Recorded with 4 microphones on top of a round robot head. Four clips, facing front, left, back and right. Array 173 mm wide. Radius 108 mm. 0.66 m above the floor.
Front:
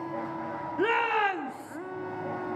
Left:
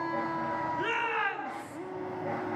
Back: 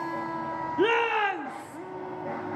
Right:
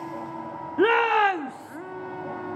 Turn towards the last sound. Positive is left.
turn(degrees=-75)